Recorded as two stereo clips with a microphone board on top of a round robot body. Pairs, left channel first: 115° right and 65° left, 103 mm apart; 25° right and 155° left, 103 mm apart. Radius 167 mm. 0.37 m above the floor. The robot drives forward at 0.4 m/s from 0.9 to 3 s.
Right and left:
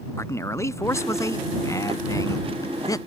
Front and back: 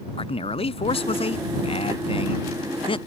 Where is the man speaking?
50° right; by 3.0 s 55° right.